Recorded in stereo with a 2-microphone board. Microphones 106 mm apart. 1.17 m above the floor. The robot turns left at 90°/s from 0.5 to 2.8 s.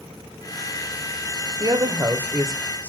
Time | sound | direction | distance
1.6 | a woman speaking | 95° right | 0.6 m